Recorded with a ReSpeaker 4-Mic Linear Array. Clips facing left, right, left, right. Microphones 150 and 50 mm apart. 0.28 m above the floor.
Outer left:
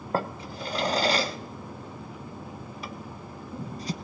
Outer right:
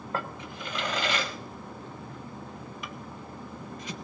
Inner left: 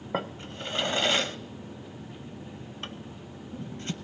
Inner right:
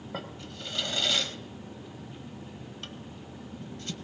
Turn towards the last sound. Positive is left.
turn(degrees=35)  # may be behind; listen again after turning